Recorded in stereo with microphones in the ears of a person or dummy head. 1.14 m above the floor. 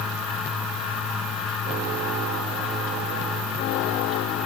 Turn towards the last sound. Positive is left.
No sound to turn to.